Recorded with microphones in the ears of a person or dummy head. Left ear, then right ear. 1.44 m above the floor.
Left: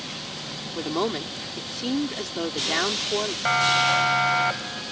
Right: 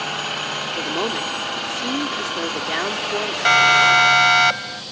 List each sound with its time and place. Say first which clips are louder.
0.8 s a woman speaking: right 1 dB; 5° right (ahead or behind)
3.5 s a siren: right 8 dB; 75° right (ahead or behind)